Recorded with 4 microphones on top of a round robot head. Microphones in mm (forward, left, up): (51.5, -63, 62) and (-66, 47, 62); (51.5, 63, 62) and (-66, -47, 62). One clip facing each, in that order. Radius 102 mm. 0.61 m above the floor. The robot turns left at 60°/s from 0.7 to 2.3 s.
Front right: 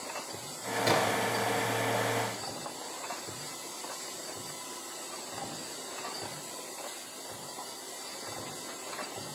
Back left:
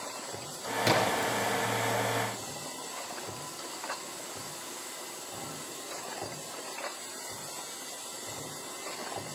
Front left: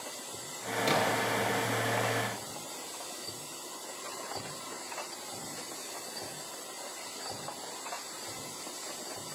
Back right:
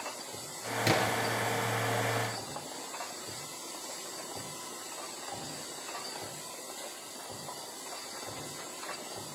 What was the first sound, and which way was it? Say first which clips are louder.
A splash: back left 1 dB, even; 155° right.